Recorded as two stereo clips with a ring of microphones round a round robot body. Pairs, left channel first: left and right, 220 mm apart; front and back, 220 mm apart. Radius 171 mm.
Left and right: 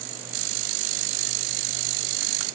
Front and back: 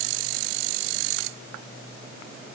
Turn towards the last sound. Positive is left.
No sound to turn to.